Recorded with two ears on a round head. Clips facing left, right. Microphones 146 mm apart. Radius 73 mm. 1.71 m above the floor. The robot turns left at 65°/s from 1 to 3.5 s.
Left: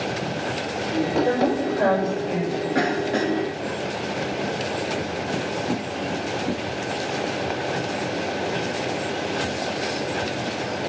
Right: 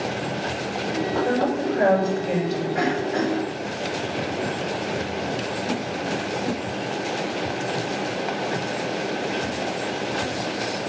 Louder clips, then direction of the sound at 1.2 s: Left 1 dB; 20° left.